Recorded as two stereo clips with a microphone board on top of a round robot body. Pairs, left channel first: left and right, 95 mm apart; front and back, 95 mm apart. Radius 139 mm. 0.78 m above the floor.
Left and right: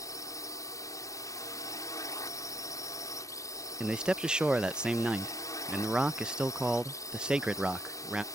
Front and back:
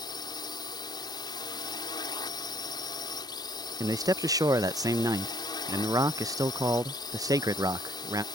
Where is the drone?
40° left.